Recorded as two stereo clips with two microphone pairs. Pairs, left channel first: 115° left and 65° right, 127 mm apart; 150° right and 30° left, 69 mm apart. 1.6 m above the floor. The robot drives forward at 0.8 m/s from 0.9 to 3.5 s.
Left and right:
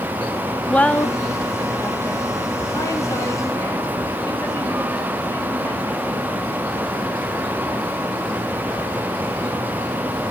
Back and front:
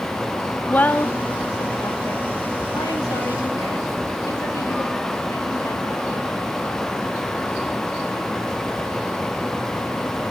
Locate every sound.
0.7 s a woman speaking: 175° right, 0.6 m; by 6.3 s straight behind, 2.5 m